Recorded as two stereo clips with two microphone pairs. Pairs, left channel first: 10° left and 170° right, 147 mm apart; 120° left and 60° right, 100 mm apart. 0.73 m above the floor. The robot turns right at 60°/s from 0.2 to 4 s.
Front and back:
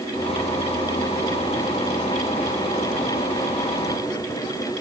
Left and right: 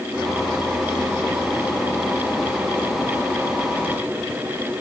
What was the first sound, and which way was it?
Only background noise.